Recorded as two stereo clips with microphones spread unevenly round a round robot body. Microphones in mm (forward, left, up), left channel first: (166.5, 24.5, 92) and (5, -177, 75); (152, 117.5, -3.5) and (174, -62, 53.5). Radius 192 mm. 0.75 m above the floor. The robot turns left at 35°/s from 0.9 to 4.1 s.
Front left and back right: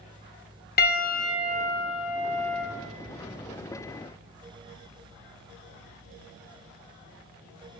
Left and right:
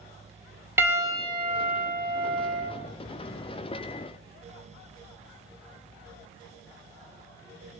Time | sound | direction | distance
0.8 | a piano | 5° right | 1.6 m